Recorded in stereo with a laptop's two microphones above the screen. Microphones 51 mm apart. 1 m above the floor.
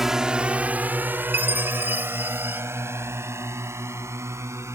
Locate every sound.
0.0 s a drone: 5° right (ahead or behind); by 4.8 s 65° right (ahead or behind)
1.3 s a chime: 40° right (ahead or behind)